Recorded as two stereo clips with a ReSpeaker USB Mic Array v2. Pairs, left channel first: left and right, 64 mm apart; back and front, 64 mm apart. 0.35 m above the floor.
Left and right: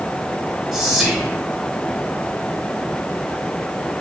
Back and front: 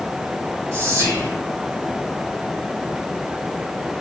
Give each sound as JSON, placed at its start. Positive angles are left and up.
{"t": 0.7, "sound": "whispering", "azimuth_deg": -15, "distance_m": 1.1}